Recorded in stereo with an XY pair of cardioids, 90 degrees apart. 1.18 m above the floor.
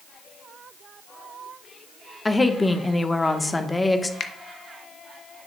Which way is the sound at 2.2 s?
20° left.